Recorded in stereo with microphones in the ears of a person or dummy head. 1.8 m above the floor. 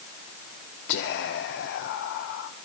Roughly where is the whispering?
Left.